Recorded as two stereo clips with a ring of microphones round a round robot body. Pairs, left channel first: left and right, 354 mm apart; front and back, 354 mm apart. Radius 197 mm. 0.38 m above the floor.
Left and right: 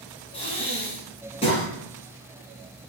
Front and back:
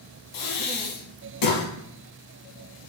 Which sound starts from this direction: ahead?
Breathing, at 0.3 s.